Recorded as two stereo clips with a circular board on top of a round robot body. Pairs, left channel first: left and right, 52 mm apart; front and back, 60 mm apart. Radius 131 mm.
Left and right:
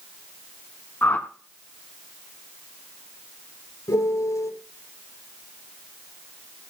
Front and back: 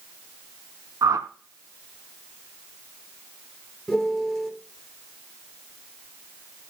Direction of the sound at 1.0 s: 150° left.